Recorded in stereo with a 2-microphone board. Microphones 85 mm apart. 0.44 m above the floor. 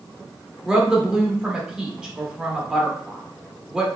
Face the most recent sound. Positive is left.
turn(degrees=-10)  # may be behind; listen again after turning